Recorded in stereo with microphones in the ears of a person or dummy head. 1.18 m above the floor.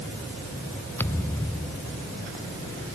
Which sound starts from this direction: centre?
A thud, at 1.0 s.